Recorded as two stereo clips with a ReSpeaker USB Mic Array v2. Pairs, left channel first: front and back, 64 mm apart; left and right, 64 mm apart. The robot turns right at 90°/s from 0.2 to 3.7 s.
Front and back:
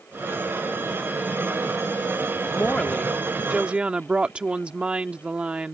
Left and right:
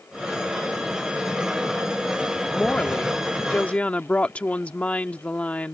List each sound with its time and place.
2.5 s a woman speaking: 25° left; by 5.8 s 130° left